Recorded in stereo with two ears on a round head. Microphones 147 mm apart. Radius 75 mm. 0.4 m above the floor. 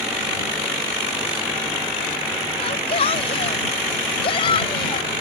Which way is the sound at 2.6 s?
35° left (ahead or behind).